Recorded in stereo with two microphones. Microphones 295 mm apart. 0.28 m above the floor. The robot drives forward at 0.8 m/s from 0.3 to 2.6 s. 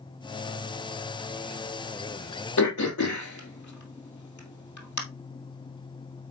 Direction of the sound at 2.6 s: 75° left (ahead or behind).